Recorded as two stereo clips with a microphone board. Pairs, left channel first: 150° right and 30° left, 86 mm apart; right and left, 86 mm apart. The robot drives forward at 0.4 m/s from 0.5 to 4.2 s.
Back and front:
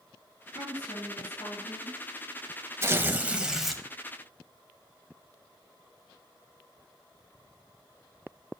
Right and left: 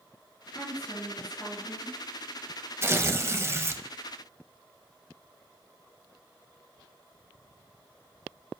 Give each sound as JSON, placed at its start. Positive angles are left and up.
{"t": 0.6, "sound": "a woman speaking", "azimuth_deg": -155, "distance_m": 3.5}
{"t": 2.8, "sound": "tearing paper", "azimuth_deg": 60, "distance_m": 0.7}